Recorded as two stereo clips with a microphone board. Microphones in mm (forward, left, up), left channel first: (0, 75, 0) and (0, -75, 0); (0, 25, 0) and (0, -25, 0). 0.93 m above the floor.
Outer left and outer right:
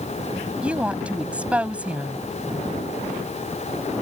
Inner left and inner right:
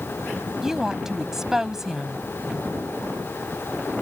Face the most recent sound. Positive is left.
turn(degrees=-10)  # may be behind; listen again after turning